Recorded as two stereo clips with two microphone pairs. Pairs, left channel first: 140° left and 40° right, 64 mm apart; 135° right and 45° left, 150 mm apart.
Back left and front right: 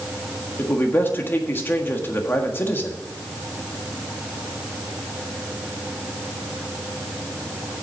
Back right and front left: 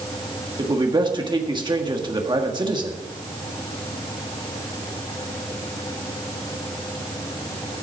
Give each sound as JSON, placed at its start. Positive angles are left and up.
{"t": 0.6, "sound": "a man speaking", "azimuth_deg": 90, "distance_m": 1.5}